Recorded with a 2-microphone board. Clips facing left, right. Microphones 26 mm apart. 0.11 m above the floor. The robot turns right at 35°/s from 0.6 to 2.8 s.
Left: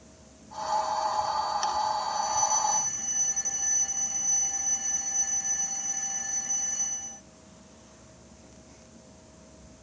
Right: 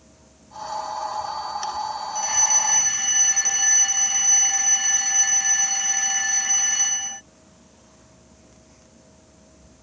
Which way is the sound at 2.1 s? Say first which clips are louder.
Right 8 dB; 65° right (ahead or behind).